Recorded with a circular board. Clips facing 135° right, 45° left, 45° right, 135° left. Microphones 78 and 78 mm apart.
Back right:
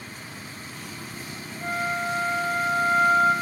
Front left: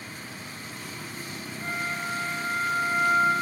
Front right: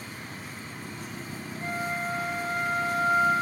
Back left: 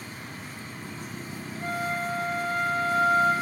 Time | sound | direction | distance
1.6 | a flute | 120° right | 2 m